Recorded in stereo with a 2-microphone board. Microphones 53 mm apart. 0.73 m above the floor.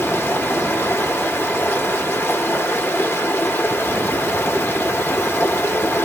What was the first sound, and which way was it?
Running water, 45° left (ahead or behind).